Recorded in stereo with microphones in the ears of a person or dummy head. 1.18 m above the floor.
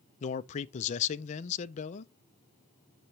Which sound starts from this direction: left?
A man speaking, at 0.2 s.